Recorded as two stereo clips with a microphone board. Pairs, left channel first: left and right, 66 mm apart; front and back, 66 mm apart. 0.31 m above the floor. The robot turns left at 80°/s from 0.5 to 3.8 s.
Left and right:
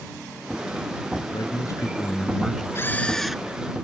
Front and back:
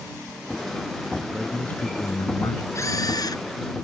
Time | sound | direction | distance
1.3 | a man speaking | 100° left | ?
2.8 | a camera shutter | 40° left | ?